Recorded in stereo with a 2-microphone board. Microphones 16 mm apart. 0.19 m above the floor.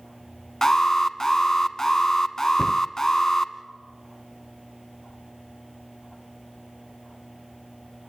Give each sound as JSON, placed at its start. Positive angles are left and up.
{"t": 0.6, "sound": "an alarm", "side_deg": 35, "distance_m": 1.0}
{"t": 2.6, "sound": "a cupboard door", "side_deg": 65, "distance_m": 1.4}